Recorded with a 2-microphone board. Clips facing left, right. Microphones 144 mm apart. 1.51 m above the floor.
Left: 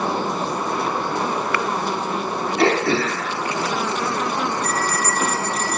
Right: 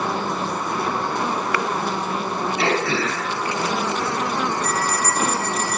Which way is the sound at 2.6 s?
50° left (ahead or behind).